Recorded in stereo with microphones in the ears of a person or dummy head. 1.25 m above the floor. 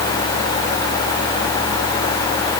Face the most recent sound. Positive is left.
No sound to turn to.